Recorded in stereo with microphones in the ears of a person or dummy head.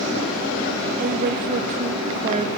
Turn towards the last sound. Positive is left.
turn(degrees=-40)  # may be behind; listen again after turning